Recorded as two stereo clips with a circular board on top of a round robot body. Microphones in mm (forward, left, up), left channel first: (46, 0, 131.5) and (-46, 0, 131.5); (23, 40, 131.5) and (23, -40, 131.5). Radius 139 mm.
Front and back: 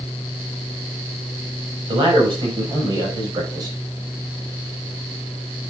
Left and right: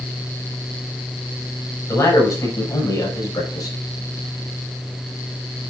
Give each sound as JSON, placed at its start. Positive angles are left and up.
{"t": 1.9, "sound": "a man speaking", "azimuth_deg": 145, "distance_m": 6.0}